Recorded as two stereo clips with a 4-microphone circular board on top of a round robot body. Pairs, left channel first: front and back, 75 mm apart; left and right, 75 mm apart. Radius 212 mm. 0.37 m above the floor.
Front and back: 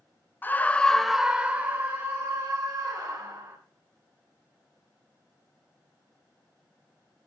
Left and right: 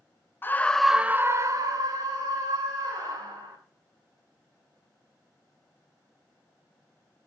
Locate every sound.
0.4 s a scream: 50° left, 1.2 m; by 3.6 s 115° right, 4 m